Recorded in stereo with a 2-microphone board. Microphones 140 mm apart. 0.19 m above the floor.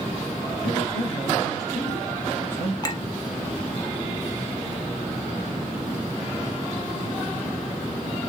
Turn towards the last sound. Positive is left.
turn(degrees=30)  # may be behind; listen again after turning